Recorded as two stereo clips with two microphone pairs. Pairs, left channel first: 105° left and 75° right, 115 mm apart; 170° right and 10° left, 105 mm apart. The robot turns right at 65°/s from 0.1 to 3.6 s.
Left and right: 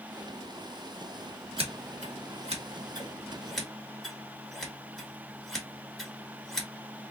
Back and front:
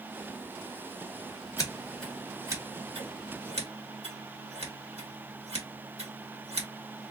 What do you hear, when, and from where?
1.6 s scissors: 110° right, 1.8 m; by 7.1 s 20° left, 1.8 m